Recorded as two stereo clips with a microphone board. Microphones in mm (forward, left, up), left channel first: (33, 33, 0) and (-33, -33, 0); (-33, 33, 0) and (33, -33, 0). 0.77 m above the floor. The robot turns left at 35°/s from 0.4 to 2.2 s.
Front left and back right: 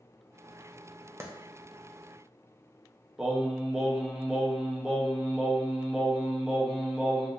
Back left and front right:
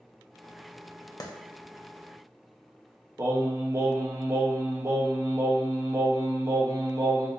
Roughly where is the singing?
Ahead right.